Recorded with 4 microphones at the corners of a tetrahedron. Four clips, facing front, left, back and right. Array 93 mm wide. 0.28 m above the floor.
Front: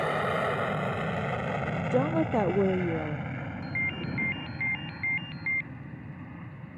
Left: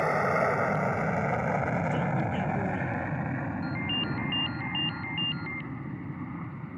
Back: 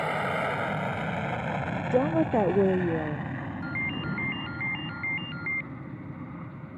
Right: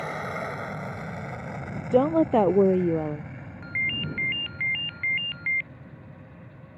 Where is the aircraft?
80° left; by 6.8 s 105° left.